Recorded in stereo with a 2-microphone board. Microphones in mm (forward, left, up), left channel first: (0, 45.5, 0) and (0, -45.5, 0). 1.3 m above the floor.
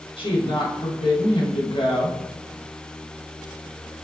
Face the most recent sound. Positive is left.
turn(degrees=85)